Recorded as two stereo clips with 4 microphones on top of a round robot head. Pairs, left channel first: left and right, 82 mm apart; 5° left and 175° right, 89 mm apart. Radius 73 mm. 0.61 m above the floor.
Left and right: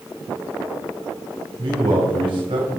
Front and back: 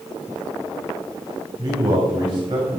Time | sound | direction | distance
1.6 | a man speaking | 125° right | 3 m